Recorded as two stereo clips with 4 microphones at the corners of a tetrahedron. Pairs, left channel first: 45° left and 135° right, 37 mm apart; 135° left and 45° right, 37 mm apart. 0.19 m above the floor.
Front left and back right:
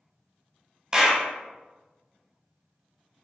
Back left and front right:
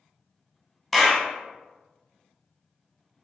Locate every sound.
0.9 s a clap: 145° right, 0.7 m